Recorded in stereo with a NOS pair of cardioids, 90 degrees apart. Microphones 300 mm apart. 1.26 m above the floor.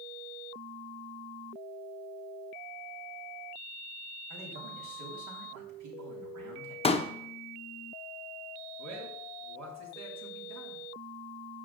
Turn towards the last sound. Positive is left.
turn(degrees=-65)